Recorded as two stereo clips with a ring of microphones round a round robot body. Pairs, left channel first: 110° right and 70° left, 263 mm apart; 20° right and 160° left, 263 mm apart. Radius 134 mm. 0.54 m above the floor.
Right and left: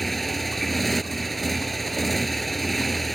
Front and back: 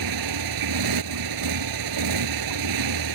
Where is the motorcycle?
160° left.